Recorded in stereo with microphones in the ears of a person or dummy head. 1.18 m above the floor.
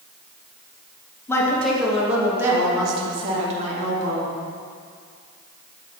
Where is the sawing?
I don't hear sawing.